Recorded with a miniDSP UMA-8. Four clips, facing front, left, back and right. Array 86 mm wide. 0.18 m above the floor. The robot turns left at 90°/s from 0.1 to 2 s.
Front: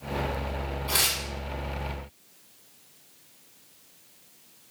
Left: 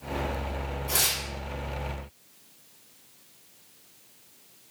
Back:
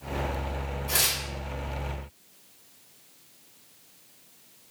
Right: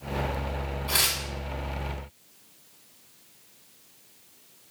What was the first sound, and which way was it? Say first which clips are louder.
Tearing paper: right 2 dB, front 1 dB; 45° right.